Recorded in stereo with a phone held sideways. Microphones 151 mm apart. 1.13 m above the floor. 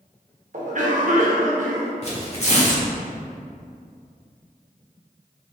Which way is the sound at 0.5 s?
55° right (ahead or behind).